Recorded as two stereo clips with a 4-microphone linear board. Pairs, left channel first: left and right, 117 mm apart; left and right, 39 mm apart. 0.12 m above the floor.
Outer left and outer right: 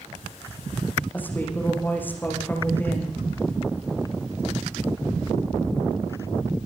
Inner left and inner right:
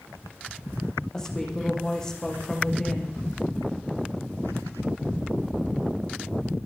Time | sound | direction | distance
1.1 | a woman speaking | 15° left (ahead or behind) | 6.5 m